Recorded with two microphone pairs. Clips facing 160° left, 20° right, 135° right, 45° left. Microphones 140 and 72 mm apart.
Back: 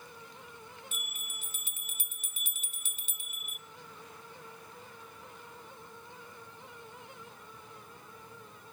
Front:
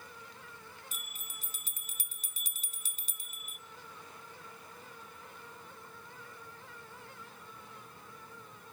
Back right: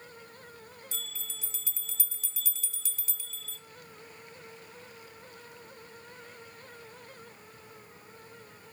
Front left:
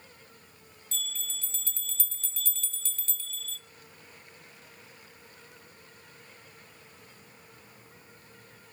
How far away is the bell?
About 1.1 m.